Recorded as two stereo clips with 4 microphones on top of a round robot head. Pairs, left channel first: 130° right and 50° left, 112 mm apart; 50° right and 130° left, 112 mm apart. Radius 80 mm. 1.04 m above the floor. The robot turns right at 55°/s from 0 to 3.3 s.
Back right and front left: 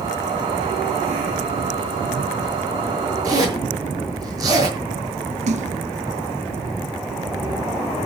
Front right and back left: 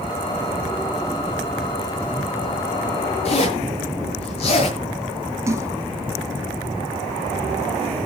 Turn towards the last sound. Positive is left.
turn(degrees=65)